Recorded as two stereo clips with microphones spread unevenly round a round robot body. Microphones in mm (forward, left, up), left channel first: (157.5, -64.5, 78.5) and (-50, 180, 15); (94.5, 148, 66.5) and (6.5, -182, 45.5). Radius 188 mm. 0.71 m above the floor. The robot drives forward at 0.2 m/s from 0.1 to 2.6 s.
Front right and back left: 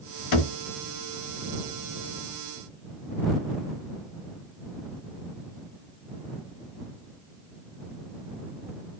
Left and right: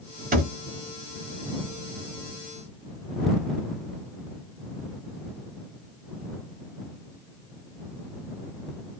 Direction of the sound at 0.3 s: 40° right.